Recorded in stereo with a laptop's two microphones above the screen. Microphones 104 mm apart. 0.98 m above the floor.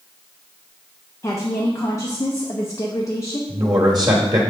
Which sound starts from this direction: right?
A man speaking, at 3.5 s.